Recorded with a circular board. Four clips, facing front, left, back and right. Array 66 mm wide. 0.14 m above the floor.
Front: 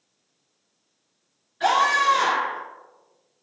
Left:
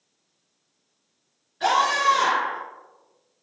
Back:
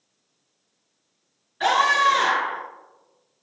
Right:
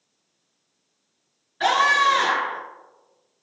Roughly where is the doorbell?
I don't hear a doorbell.